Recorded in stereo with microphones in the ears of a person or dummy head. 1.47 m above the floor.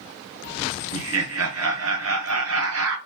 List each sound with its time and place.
0.9 s laughter: 70° right (ahead or behind), 1.1 m